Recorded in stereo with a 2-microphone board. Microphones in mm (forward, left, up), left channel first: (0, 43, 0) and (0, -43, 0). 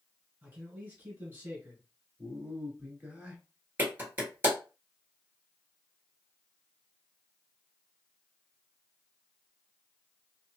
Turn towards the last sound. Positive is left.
turn(degrees=-25)  # may be behind; listen again after turning